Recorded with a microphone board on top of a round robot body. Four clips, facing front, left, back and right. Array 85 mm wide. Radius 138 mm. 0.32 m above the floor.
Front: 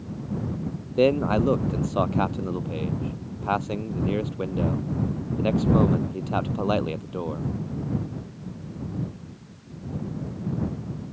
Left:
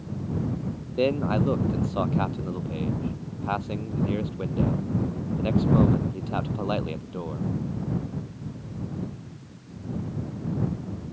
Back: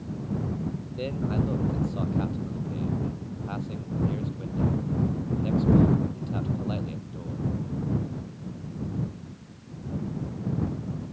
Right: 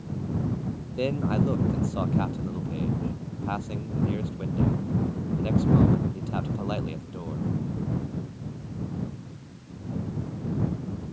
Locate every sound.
1.0 s a man speaking: 10° left